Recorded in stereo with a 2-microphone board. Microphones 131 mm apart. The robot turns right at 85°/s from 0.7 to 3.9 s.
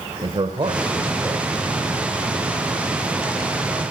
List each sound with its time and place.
0.2 s a man speaking: 90° right, 1.0 m; by 1.5 s 20° right, 1.0 m